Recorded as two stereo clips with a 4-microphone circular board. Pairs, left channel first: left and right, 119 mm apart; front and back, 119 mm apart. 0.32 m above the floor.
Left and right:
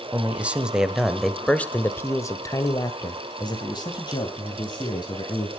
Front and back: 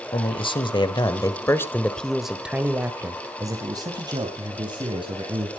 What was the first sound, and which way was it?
A man speaking, 15° right.